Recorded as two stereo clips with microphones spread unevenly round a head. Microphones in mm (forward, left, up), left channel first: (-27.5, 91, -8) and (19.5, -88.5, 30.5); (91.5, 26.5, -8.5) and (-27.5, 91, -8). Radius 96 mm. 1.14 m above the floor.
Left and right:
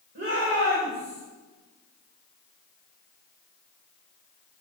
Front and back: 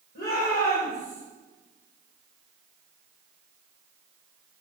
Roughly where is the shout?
Ahead right.